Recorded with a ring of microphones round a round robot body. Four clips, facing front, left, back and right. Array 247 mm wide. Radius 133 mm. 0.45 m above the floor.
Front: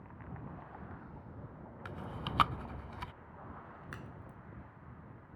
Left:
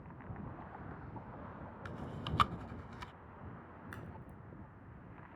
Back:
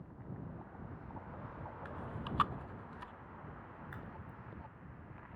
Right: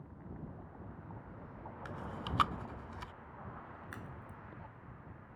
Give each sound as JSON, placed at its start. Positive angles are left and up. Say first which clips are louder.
{"t": 1.9, "sound": "chewing", "louder": "right 1 dB, front 3 dB", "azimuth_deg": 10}
{"t": 3.9, "sound": "a crack", "louder": "right 1 dB, even", "azimuth_deg": -5}